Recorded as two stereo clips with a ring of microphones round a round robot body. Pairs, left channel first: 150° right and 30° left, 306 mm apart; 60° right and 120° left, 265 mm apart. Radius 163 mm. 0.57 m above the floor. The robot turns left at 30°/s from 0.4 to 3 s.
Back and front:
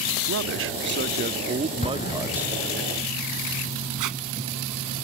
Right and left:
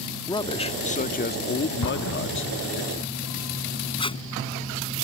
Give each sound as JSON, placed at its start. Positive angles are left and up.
{"t": 0.3, "sound": "a man speaking", "azimuth_deg": 10}
{"t": 1.8, "sound": "an explosion", "azimuth_deg": -85}
{"t": 4.0, "sound": "tape being pulled", "azimuth_deg": 10}